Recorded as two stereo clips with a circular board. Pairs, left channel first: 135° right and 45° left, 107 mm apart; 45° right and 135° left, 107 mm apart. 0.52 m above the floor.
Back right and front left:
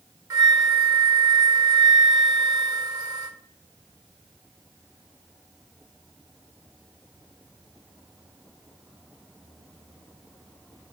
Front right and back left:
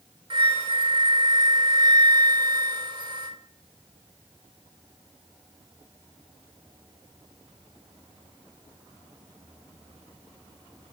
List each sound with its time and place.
0.3 s a flute: 95° left, 0.9 m